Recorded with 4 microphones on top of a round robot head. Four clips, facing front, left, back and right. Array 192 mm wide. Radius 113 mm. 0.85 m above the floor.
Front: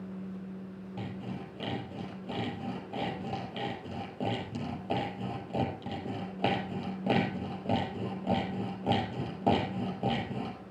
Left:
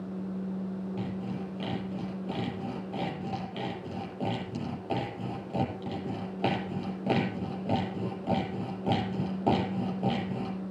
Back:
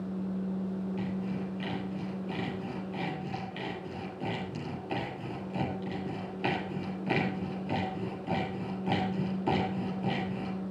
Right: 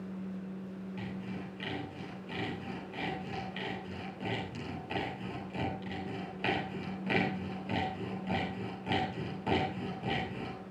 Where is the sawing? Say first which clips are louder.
Left 6 dB, back 5 dB; 40° left, 5 m.